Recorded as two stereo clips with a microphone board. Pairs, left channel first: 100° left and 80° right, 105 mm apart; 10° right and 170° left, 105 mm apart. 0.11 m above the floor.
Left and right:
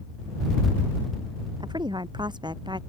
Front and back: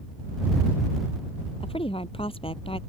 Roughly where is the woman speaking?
Ahead right.